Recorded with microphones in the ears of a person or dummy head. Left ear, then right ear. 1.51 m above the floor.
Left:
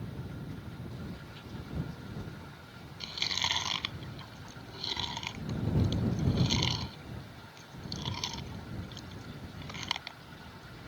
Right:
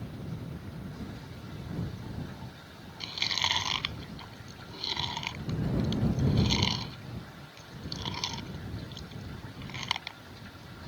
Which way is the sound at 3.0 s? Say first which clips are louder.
Right 2 dB; 10° right (ahead or behind).